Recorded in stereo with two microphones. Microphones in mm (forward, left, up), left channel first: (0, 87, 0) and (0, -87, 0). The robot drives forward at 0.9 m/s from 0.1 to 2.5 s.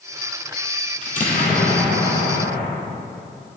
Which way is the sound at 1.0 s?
45° left (ahead or behind).